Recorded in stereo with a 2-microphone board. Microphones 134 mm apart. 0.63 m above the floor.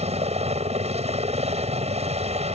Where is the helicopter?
55° right (ahead or behind).